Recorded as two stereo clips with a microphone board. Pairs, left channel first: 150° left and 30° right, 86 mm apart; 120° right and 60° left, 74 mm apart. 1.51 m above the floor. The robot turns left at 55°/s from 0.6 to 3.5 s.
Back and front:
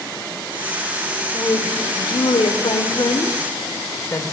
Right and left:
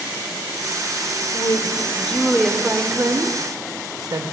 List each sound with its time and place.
1.3 s a woman speaking: 155° right, 0.6 m; by 4.3 s 90° left, 0.6 m